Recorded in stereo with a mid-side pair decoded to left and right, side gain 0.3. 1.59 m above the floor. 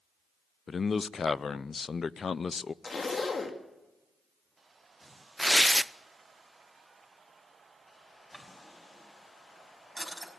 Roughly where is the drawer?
Ahead.